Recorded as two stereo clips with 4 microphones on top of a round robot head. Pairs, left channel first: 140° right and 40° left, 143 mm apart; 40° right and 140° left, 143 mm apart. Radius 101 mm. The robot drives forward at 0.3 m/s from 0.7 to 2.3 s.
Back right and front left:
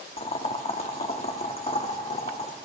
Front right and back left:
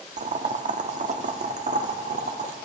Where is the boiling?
175° left, 1.1 m.